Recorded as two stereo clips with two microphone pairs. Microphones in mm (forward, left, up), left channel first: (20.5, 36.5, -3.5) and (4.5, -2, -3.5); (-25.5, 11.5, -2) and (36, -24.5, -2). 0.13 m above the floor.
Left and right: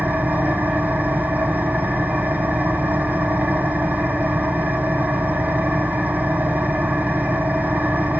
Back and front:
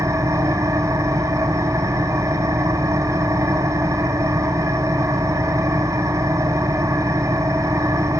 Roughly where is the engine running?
Right.